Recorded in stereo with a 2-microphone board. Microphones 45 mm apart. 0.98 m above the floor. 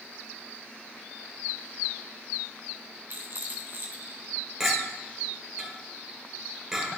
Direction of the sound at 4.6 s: 10° right (ahead or behind).